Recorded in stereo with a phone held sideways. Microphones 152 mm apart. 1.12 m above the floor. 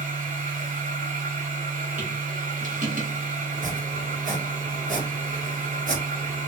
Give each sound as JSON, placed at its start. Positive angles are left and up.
{"t": 0.0, "sound": "a machine running", "side_deg": -65, "distance_m": 1.4}
{"t": 3.5, "sound": "chopping", "side_deg": -60, "distance_m": 1.1}